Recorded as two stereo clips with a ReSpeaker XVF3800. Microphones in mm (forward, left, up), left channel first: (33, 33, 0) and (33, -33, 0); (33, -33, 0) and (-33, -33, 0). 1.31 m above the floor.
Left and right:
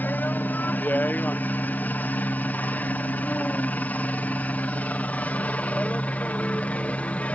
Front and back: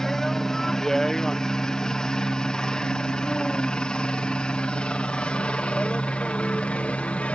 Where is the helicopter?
75° left; by 7.3 s 50° left.